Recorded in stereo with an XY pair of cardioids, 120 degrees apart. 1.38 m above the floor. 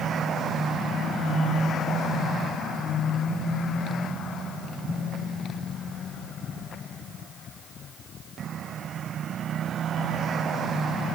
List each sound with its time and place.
Only background noise.